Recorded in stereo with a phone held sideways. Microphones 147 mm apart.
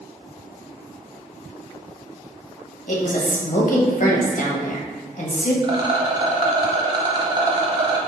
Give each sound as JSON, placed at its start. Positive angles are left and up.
{"t": 2.9, "sound": "a woman speaking", "side_deg": 70, "distance_m": 1.1}
{"t": 5.6, "sound": "a rattle", "side_deg": -35, "distance_m": 0.9}